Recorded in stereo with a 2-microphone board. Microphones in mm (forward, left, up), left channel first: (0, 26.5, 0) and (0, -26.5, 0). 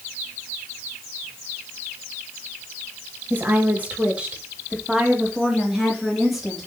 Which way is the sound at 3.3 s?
40° right (ahead or behind).